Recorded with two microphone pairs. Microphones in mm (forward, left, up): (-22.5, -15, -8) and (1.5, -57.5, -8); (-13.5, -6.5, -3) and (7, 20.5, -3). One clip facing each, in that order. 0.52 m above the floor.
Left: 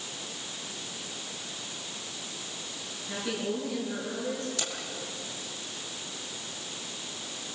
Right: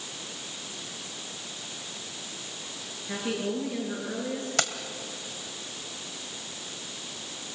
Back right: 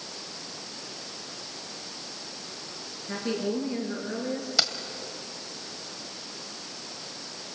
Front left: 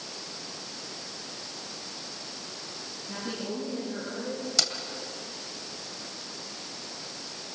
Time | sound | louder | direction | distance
3.1 | a woman speaking | right 2 dB, back right 6 dB | 125° right | 9.5 m
4.6 | keys jangling | right 7 dB, back right 2 dB | 55° right | 1.7 m